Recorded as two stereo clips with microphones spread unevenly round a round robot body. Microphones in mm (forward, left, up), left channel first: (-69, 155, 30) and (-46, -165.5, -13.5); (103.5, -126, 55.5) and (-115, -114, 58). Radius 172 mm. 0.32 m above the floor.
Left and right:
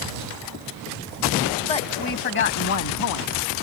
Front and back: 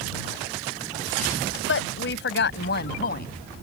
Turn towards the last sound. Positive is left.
turn(degrees=55)